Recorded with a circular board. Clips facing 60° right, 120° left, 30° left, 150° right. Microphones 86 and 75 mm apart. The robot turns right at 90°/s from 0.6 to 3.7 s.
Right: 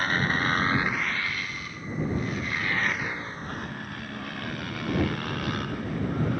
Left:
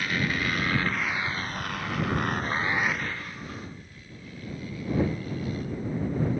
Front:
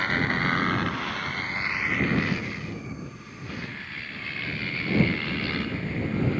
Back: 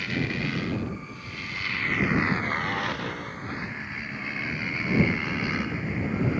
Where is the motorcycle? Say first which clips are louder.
Right 3 dB, front 4 dB; 10° right; by 6.4 s 75° right.